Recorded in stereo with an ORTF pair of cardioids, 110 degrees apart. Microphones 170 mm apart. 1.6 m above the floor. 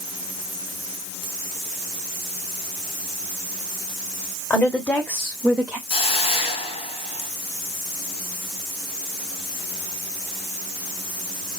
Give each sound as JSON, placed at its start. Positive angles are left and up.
{"t": 4.5, "sound": "a woman speaking", "azimuth_deg": 10, "distance_m": 2.5}
{"t": 5.9, "sound": "a hiss", "azimuth_deg": 35, "distance_m": 1.6}